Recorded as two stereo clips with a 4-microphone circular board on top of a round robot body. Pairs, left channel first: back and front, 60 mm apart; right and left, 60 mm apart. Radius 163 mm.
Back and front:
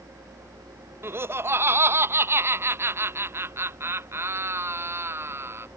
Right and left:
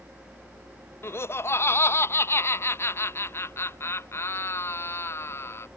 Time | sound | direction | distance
1.0 | laughter | 50° right | ?